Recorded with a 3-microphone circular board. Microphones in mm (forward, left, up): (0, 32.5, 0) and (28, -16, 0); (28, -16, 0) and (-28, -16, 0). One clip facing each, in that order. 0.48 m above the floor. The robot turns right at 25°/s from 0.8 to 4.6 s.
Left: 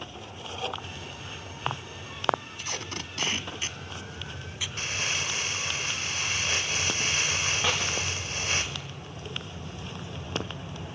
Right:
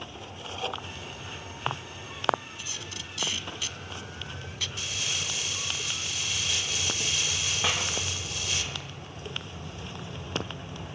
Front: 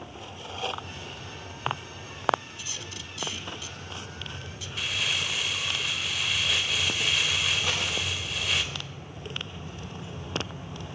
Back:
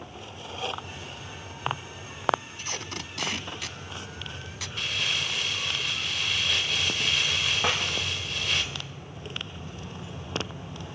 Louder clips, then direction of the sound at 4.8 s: Left 5 dB, even; 90° left.